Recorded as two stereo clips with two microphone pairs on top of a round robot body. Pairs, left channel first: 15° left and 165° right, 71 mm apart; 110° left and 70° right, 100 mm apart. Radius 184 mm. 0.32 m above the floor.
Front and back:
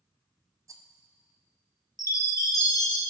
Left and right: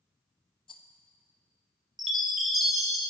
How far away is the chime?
About 2 m.